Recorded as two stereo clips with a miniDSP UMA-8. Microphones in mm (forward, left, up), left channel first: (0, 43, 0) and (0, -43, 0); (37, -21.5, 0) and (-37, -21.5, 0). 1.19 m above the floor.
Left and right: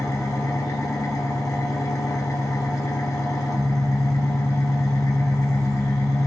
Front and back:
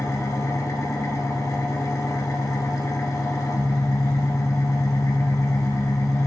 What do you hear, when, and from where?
0.0 s an engine running: 40° left, 1.1 m